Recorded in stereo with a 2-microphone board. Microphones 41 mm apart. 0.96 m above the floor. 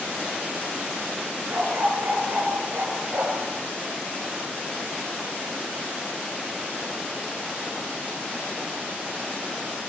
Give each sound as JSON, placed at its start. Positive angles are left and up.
{"t": 1.5, "sound": "a dog barking", "side_deg": -60, "distance_m": 5.5}